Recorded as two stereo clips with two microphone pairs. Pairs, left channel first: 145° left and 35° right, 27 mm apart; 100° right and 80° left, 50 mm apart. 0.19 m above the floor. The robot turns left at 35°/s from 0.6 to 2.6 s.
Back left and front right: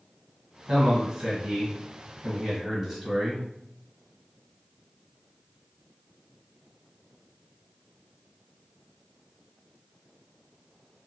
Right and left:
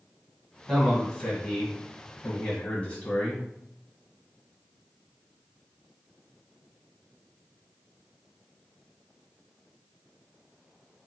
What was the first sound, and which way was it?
A man speaking, 25° right.